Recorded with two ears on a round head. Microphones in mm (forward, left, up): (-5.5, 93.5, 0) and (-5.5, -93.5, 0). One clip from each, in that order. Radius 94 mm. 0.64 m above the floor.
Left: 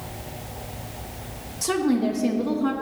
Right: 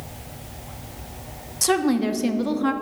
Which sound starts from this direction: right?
A woman speaking, at 1.6 s.